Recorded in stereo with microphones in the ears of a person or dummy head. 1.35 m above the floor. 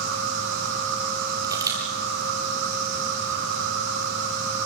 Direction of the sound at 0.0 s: 65° right (ahead or behind).